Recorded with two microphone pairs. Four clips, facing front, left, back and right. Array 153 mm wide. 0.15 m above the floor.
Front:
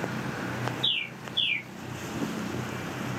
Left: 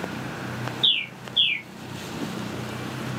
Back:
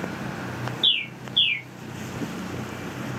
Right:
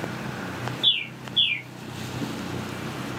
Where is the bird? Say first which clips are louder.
Even, back 4 dB; 155° right, 0.8 m.